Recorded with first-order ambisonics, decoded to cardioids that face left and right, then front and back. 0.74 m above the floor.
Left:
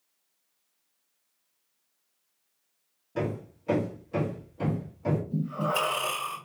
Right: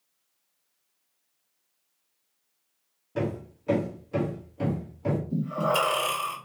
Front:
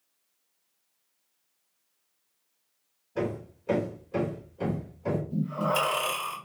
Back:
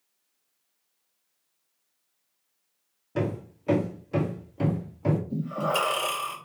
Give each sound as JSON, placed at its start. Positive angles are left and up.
{"t": 3.1, "sound": "hammering", "azimuth_deg": -170, "distance_m": 1.5}
{"t": 5.3, "sound": "breathing", "azimuth_deg": -145, "distance_m": 2.0}